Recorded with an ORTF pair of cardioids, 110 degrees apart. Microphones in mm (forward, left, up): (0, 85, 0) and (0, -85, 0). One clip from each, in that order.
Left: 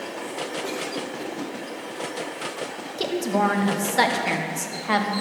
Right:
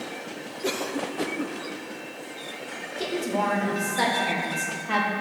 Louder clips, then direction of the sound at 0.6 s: Right 1 dB; 30° right.